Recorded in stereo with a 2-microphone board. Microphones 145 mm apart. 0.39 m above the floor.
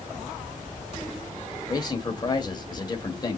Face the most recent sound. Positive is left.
turn(degrees=30)  # may be behind; listen again after turning